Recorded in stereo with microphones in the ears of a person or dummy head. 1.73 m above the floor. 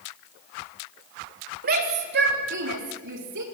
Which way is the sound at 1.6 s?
45° right (ahead or behind).